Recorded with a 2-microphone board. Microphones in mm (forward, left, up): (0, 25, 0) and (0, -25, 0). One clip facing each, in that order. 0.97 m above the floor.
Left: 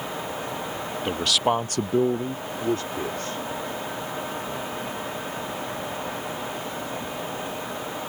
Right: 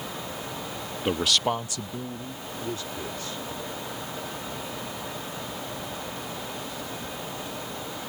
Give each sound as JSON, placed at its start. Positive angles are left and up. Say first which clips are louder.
{"t": 1.1, "sound": "a man speaking", "louder": "left 1 dB", "side_deg": -10}